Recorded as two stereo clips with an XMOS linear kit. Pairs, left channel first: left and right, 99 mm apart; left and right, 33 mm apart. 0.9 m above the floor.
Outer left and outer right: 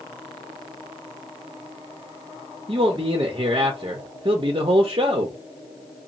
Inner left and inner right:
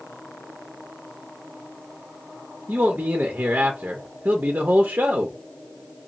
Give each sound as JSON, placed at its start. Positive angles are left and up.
{"t": 2.7, "sound": "a man speaking", "side_deg": -55, "distance_m": 0.5}